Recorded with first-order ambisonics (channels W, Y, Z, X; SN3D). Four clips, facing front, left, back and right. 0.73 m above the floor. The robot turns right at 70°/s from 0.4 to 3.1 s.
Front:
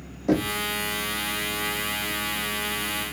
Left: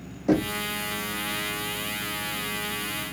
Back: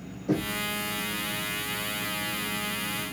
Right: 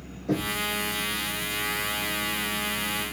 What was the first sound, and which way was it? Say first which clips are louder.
Knocking: left 4 dB, front 5 dB; 45° left.